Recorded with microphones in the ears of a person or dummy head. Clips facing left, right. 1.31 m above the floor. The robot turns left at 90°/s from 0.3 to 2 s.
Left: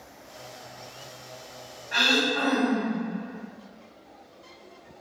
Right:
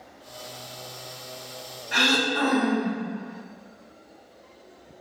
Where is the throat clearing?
40° right (ahead or behind), 0.9 m; by 3.0 s 35° right (ahead or behind), 0.9 m.